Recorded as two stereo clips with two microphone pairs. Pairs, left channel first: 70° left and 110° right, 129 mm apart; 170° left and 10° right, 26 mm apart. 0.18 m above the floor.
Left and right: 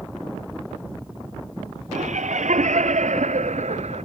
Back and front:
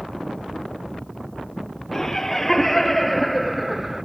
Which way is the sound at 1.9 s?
120° right.